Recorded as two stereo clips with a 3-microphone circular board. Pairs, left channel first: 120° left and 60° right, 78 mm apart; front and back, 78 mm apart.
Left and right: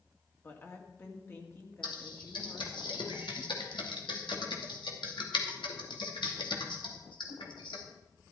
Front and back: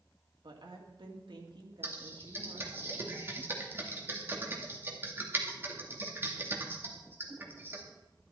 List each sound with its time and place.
0.4 s a woman speaking: straight behind, 2.5 m
1.8 s typing on a keyboard: 120° left, 2 m